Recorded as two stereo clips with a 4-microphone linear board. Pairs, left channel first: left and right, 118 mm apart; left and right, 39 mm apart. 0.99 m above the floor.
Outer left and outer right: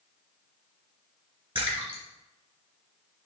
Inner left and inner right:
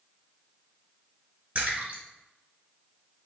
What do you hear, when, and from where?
1.6 s a splash: 50° right (ahead or behind), 3 m